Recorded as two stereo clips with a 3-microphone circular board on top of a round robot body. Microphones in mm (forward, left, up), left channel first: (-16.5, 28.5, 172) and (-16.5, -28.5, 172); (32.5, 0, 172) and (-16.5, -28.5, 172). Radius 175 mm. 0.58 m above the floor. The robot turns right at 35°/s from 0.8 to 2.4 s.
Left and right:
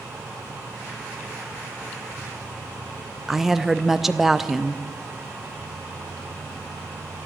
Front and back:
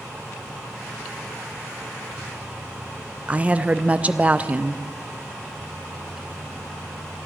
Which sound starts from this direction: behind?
A woman speaking, at 3.3 s.